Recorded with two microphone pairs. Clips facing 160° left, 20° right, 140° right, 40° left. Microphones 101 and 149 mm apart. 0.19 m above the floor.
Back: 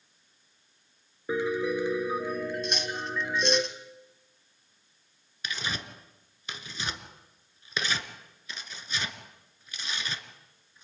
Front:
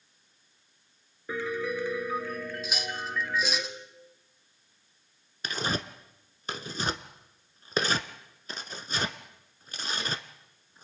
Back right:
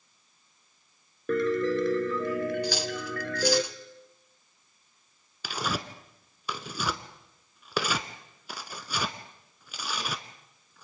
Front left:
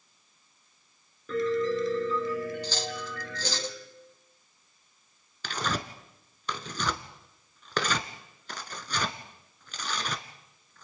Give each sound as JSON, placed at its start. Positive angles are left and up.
{"t": 1.3, "sound": "a piano", "azimuth_deg": -130, "distance_m": 2.0}
{"t": 2.6, "sound": "cutlery clinking", "azimuth_deg": -95, "distance_m": 0.7}
{"t": 5.4, "sound": "tearing paper", "azimuth_deg": -60, "distance_m": 1.0}